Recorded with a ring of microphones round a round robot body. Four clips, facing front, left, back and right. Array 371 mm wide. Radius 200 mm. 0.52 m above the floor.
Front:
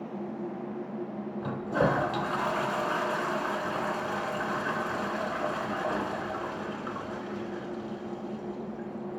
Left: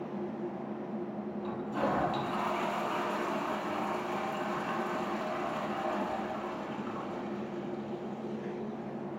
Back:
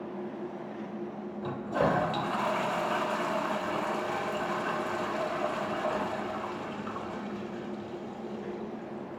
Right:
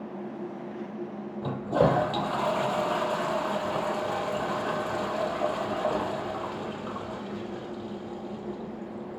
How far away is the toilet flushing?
About 3 m.